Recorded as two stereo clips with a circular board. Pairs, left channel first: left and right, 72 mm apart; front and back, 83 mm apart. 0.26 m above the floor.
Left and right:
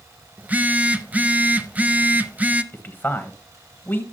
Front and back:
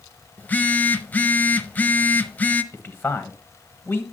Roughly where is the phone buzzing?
Ahead right.